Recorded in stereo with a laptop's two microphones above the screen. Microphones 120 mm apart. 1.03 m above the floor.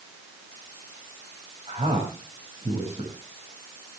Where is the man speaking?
60° right (ahead or behind), 5.5 m.